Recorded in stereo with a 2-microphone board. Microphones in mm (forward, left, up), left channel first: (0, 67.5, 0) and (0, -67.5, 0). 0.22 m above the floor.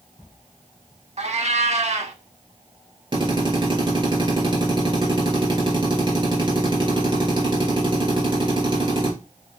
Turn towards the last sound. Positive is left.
turn(degrees=-35)  # may be behind; listen again after turning